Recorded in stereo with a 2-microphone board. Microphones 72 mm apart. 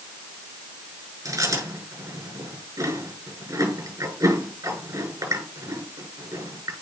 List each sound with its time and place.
1.2 s chewing: 50° right (ahead or behind), 7 m